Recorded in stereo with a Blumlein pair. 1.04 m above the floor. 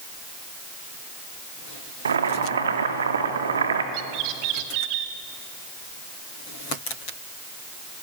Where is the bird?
40° right, 1.4 m.